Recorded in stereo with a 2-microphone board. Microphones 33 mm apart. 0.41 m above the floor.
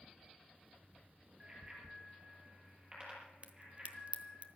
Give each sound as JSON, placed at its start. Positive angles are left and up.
{"t": 1.4, "sound": "a bicycle bell", "side_deg": -35, "distance_m": 6.0}
{"t": 3.4, "sound": "a crack", "side_deg": -40, "distance_m": 1.1}